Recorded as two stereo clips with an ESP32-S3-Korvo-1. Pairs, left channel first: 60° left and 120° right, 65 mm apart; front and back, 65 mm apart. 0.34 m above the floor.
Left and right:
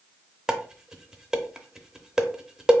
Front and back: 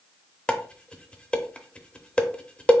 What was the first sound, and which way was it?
Dishes clattering, 50° right.